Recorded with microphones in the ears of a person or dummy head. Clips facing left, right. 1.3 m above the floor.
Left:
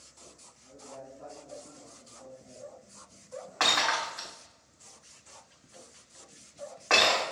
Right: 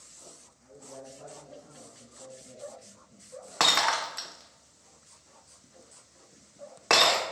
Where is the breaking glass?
60° right (ahead or behind), 0.8 m.